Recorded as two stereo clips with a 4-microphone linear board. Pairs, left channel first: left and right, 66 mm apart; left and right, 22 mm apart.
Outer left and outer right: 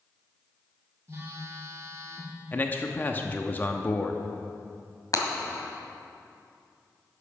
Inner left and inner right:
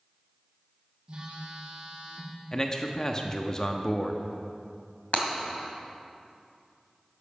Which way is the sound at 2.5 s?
30° left (ahead or behind).